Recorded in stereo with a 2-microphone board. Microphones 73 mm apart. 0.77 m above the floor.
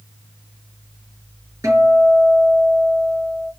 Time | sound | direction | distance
1.6 | a guitar | 40° right (ahead or behind) | 4 m